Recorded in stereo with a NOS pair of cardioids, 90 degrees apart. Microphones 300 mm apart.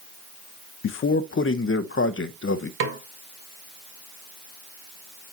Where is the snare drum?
45° right, 1.7 m.